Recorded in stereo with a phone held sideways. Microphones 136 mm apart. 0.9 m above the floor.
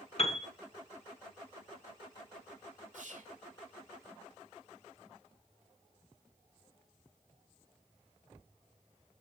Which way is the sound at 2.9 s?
65° right (ahead or behind).